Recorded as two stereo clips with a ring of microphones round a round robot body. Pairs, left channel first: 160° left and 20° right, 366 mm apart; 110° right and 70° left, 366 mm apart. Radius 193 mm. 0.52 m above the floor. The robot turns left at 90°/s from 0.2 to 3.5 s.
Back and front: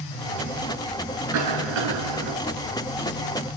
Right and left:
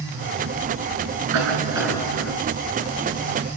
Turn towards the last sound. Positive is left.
turn(degrees=-170)